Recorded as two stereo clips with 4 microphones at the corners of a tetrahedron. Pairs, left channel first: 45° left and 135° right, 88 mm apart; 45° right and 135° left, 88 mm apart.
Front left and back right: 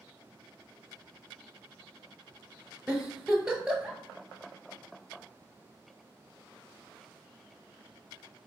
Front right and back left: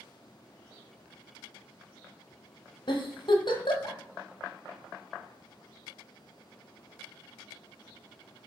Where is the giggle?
55° right, 0.9 m.